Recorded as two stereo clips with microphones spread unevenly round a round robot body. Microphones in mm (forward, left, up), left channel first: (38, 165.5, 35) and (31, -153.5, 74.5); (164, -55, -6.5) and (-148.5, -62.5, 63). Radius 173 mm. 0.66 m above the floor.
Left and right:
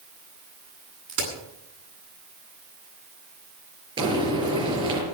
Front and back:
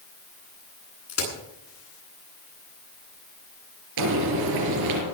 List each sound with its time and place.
1.1 s a crack: 40° right, 9.5 m
4.0 s frying: 165° right, 5 m